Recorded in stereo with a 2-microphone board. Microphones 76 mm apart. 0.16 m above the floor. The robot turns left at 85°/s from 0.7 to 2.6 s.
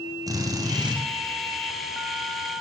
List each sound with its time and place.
0.3 s a drill: 45° right (ahead or behind), 2.5 m; by 1.0 s 65° right (ahead or behind), 2.5 m